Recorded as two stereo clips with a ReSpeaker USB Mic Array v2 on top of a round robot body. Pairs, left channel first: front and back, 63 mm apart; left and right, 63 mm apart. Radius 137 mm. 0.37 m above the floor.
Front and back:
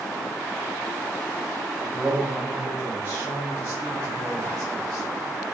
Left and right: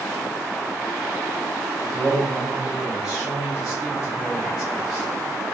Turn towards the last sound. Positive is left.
turn(degrees=-170)